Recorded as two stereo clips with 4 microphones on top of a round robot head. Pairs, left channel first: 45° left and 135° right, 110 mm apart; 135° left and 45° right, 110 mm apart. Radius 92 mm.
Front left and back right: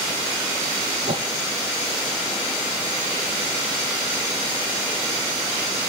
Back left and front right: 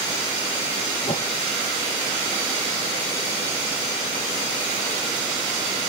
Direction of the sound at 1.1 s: 175° right.